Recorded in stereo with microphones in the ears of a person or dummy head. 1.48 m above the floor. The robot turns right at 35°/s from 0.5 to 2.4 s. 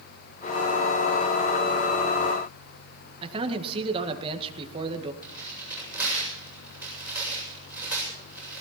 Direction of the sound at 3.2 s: 25° right (ahead or behind).